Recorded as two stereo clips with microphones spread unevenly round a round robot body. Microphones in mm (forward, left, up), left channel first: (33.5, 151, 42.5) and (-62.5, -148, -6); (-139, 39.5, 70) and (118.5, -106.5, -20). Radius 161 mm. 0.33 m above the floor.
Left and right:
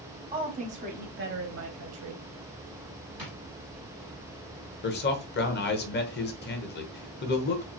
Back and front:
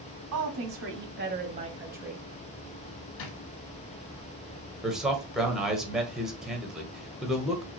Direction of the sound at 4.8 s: 25° left.